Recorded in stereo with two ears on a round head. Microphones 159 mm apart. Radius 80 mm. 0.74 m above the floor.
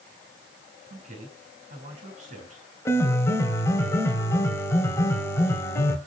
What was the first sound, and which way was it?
A man speaking, 40° right (ahead or behind).